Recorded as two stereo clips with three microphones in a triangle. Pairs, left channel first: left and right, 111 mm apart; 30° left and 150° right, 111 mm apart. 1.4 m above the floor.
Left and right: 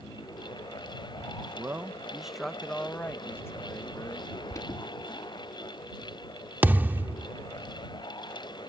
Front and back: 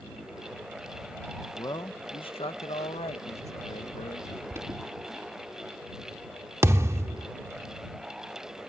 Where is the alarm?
145° left.